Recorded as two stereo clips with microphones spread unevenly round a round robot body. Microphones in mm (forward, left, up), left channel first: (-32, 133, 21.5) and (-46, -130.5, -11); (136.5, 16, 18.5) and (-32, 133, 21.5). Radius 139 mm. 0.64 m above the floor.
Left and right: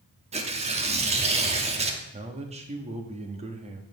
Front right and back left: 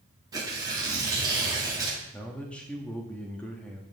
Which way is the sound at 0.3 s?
145° right.